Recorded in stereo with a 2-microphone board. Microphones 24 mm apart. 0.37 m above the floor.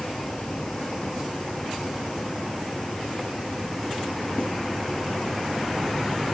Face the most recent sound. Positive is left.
No sound to turn to.